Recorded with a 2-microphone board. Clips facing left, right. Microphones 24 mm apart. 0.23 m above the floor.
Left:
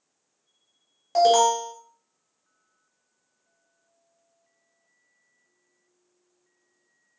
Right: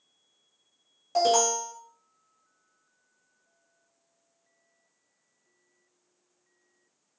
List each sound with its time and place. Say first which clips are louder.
1.1 s an alarm: left 5 dB; 15° left (ahead or behind), 1.5 m